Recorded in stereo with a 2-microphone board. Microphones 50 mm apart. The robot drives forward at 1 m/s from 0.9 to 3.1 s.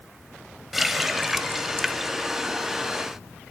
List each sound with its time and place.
0.7 s a running tap: 5° right (ahead or behind), 1.2 m